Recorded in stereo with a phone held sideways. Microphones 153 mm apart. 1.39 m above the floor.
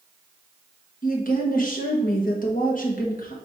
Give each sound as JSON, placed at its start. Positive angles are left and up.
{"t": 1.0, "sound": "a woman speaking", "side_deg": 60, "distance_m": 1.4}